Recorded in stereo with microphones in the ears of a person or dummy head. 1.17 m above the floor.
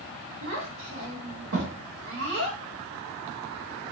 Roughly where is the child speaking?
Right.